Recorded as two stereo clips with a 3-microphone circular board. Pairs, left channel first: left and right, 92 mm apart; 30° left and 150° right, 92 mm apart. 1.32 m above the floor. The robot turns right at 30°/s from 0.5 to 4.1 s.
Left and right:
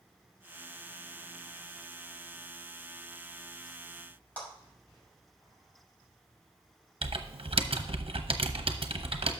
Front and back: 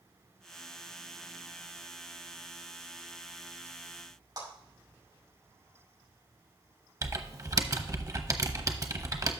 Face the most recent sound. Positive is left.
turn(degrees=-100)